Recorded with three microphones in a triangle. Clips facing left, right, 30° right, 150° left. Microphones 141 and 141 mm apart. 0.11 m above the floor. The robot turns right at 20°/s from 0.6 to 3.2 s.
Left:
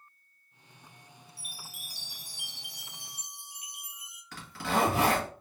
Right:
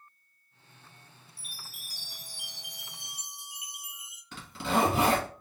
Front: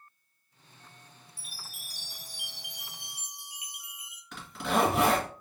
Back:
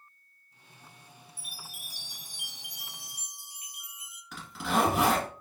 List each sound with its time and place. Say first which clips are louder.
1.4 s a chime: left 1 dB, back 1 dB; 150° left, 1.4 m; by 4.2 s 175° right, 1.4 m
4.3 s a zipper: right 2 dB, even; 125° right, 1.7 m